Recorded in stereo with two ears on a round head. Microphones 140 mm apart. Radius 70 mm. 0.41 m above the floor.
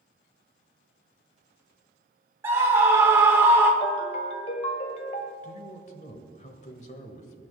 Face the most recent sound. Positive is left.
turn(degrees=45)  # may be behind; listen again after turning